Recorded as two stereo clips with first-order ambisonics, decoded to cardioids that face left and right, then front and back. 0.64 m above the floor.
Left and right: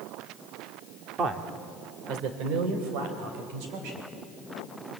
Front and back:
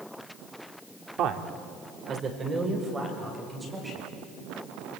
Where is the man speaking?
145° right, 1.7 m; by 4.1 s 95° right, 4.5 m.